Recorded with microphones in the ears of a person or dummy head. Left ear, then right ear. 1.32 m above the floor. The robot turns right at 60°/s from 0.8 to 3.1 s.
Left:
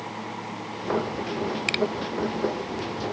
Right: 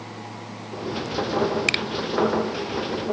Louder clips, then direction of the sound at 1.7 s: Left 1 dB; 10° right (ahead or behind).